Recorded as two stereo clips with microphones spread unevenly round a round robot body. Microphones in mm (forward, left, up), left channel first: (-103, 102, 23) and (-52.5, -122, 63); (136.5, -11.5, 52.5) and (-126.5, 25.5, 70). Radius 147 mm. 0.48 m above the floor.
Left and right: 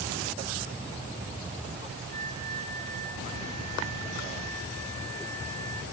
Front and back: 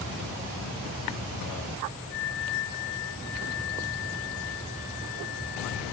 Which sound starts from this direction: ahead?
A flute, at 2.1 s.